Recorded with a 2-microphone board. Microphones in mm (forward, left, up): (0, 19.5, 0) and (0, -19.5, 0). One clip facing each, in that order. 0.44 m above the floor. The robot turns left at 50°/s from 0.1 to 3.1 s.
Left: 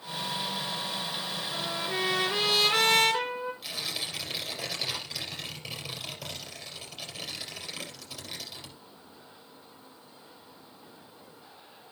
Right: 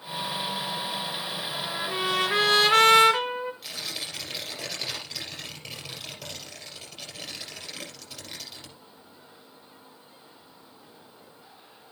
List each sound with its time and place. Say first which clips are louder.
1.5 s a trumpet: right 1 dB; 15° right, 3.5 m; by 3.5 s 95° right, 3.5 m
3.6 s tearing paper: even; centre (ahead or behind), 3.5 m